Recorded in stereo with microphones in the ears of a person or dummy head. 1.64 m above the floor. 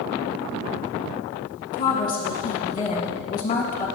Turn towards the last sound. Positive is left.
turn(degrees=25)  # may be behind; listen again after turning